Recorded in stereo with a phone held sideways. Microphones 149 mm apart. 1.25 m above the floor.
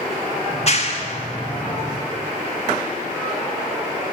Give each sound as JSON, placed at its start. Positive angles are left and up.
{"t": 0.5, "sound": "a clap", "side_deg": 45, "distance_m": 1.5}